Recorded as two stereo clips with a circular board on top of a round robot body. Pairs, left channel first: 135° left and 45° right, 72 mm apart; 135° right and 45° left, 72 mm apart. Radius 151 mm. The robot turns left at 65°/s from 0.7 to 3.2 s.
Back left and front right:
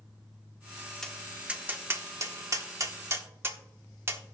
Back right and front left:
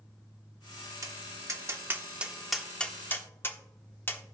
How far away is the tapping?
About 1.2 m.